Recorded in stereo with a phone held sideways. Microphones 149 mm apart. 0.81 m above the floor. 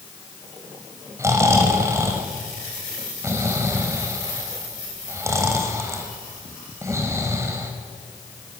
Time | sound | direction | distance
1.2 | snoring | 20° right (ahead or behind) | 3.5 m